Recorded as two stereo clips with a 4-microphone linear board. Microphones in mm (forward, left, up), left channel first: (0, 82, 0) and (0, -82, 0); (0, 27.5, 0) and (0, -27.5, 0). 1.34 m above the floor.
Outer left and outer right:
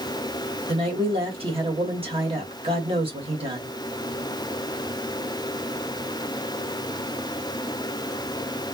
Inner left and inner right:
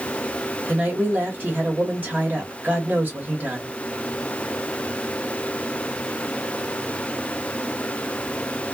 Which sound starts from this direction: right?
A woman speaking, at 0.7 s.